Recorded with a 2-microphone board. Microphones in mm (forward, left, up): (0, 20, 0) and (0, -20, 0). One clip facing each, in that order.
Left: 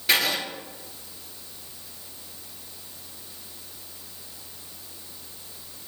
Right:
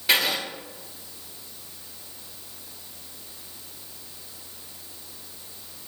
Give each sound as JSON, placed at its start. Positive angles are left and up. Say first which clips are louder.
{"t": 0.1, "sound": "writing", "louder": "even", "side_deg": 0, "distance_m": 1.3}